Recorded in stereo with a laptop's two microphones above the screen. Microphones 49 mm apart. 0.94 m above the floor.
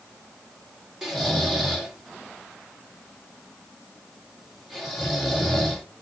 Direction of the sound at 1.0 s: 5° right (ahead or behind).